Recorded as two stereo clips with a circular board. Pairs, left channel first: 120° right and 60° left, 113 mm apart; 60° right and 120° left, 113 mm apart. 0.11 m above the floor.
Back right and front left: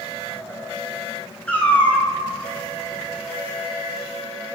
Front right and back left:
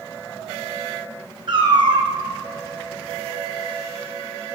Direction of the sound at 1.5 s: 165° left.